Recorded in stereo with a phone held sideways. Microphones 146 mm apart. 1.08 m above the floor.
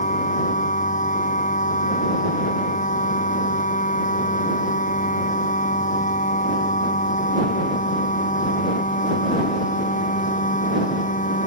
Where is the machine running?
60° left (ahead or behind).